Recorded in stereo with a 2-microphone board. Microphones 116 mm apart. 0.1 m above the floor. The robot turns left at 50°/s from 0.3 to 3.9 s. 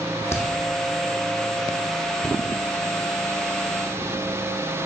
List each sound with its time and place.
0.3 s a crack: 25° left (ahead or behind), 1.4 m; by 0.5 s 15° left (ahead or behind), 1.4 m